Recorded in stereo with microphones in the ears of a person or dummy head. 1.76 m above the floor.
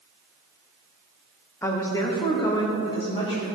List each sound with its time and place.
1.6 s a woman speaking: 15° left (ahead or behind), 0.9 m; by 3.5 s 30° left (ahead or behind), 1.8 m